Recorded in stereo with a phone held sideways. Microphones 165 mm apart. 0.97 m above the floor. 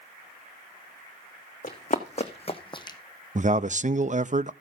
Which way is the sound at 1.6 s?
50° left (ahead or behind).